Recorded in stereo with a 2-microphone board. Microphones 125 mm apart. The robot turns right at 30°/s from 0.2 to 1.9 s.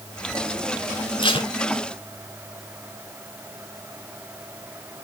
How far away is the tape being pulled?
About 1.0 m.